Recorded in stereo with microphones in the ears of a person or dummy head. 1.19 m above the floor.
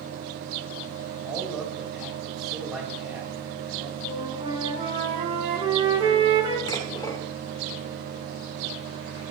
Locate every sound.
1.2 s a man speaking: centre (ahead or behind), 6 m
4.0 s a flute: 30° right (ahead or behind), 3 m
6.7 s dishes clattering: 25° left (ahead or behind), 2 m